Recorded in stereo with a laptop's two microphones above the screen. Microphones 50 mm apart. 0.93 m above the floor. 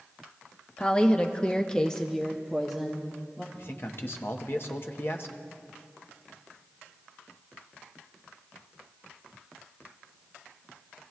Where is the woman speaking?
20° left (ahead or behind), 1.1 m; by 3.4 s centre (ahead or behind), 1.6 m.